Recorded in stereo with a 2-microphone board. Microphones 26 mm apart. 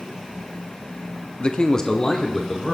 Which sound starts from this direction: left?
A man speaking, at 1.4 s.